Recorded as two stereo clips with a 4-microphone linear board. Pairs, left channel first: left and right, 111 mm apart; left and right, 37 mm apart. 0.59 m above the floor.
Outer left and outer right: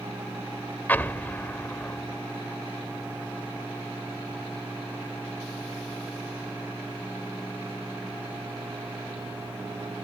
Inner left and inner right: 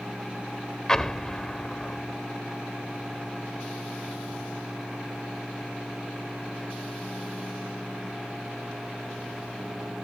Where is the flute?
I don't hear a flute.